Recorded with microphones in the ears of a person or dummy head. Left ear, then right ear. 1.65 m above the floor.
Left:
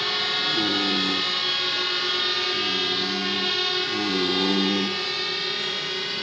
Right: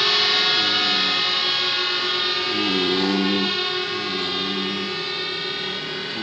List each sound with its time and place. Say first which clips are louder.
0.0 s a drone: right 6 dB; 15° right (ahead or behind); by 6.2 s 15° left (ahead or behind)